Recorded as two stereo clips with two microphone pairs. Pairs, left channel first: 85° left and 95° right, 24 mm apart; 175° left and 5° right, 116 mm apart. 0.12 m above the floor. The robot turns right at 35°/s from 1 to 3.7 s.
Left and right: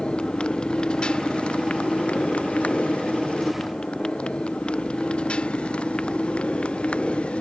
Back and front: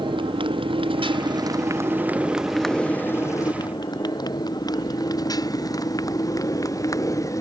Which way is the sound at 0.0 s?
40° left.